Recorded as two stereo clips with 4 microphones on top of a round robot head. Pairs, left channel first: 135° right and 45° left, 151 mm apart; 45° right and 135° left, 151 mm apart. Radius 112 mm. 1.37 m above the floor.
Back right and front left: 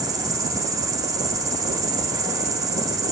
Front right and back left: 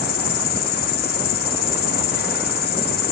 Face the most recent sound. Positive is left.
turn(degrees=-25)